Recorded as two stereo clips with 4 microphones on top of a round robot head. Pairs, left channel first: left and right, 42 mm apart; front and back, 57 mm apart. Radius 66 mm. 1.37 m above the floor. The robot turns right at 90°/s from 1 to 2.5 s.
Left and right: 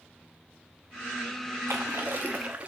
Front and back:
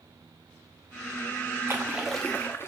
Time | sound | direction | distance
1.7 | a splash | 125° right | 0.8 m